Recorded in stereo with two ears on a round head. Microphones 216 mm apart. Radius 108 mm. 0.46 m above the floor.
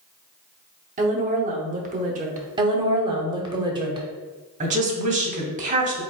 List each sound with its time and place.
1.0 s a woman speaking: 30° right (ahead or behind), 0.8 m
2.6 s a woman speaking: 20° right (ahead or behind), 0.8 m
4.6 s a woman speaking: 30° right (ahead or behind), 0.9 m